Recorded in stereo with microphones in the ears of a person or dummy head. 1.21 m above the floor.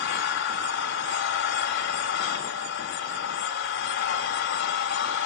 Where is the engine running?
75° left (ahead or behind), 3 m.